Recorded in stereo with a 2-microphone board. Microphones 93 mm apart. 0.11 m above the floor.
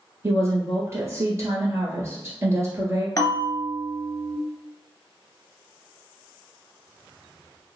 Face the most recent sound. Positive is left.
turn(degrees=40)  # may be behind; listen again after turning